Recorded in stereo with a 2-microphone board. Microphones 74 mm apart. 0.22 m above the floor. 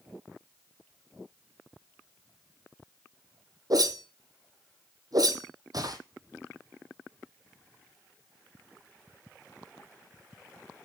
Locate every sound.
3.7 s a whoosh: 60° right (ahead or behind), 1.4 m